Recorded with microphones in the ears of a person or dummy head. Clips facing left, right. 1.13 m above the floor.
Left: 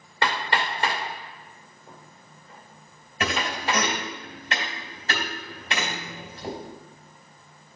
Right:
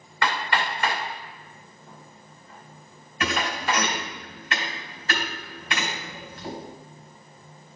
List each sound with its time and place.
0.2 s hammering: 25° left (ahead or behind), 2.5 m
3.2 s a thud: 25° left (ahead or behind), 2.5 m